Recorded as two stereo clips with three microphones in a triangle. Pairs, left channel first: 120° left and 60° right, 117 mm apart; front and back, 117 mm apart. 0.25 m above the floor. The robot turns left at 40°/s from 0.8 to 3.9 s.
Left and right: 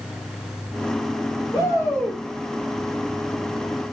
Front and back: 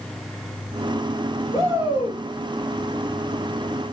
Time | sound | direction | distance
1.5 | a shout | 65° left | 6 m